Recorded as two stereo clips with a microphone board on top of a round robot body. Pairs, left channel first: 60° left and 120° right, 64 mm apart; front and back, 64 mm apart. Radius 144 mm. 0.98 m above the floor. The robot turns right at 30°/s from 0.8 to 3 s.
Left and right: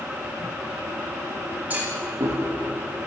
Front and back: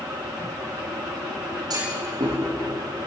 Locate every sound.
1.7 s a clunk: 175° left, 7.5 m; by 2.4 s 165° right, 7.5 m